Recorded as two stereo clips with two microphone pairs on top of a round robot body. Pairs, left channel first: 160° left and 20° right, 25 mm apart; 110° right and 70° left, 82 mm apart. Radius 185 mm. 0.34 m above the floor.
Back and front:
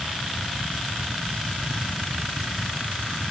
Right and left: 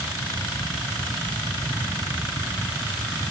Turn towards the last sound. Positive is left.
No sound to turn to.